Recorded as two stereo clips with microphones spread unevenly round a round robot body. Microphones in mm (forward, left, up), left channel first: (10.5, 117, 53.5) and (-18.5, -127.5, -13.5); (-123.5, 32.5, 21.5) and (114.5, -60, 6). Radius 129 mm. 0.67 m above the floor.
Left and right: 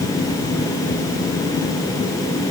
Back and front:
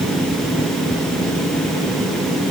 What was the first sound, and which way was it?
Only background noise.